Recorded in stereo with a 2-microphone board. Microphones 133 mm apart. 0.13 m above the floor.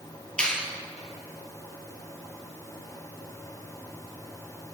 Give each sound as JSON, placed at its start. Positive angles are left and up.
{"t": 0.4, "sound": "a finger snap", "side_deg": 5, "distance_m": 2.0}